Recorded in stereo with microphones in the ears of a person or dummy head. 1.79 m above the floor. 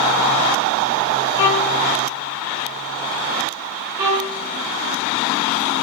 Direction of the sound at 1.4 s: 25° left (ahead or behind).